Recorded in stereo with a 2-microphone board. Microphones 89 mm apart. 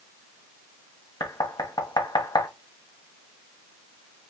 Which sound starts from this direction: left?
Knocking, at 1.2 s.